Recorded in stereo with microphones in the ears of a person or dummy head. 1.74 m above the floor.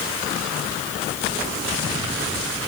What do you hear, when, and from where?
Only background noise.